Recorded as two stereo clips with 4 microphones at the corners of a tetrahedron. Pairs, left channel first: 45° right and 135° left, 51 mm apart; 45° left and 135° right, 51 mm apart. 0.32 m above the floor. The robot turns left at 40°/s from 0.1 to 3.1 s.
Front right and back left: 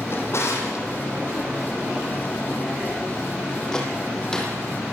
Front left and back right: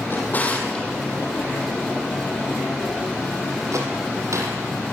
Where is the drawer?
Straight ahead, 6.5 m; by 4.6 s 120° right, 6.5 m.